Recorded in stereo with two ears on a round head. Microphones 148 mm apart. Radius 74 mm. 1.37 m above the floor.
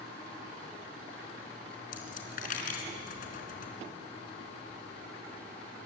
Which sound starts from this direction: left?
A dropped coin, at 1.9 s.